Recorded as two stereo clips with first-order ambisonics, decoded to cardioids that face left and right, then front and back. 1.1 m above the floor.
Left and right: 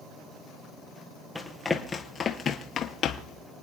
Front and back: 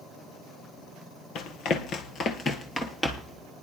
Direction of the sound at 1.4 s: 5° left.